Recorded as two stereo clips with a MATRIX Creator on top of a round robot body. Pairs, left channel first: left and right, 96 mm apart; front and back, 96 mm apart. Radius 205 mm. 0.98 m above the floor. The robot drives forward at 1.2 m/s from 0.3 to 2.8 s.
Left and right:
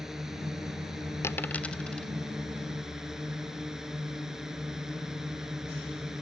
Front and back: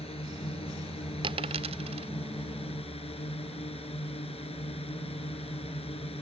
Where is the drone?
5° right.